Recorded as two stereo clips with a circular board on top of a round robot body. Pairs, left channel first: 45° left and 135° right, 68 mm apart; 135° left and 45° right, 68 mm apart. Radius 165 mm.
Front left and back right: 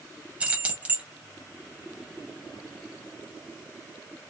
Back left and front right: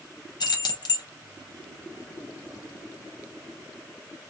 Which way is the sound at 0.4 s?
155° left.